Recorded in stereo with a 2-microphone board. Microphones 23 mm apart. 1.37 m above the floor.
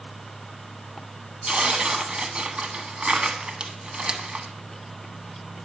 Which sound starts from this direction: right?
Tearing paper, at 1.5 s.